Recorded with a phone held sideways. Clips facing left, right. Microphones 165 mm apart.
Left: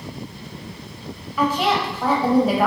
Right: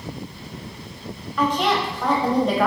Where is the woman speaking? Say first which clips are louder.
Left 1 dB; 5° left (ahead or behind), 1.0 m.